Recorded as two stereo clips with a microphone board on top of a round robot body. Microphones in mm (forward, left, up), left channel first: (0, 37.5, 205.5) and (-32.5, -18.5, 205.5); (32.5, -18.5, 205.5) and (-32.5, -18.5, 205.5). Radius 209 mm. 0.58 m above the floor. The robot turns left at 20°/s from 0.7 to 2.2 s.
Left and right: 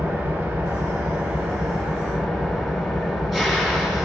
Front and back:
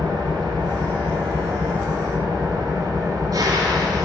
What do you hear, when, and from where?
0.0 s an engine running: straight behind, 1.8 m; by 4.0 s 150° left, 1.8 m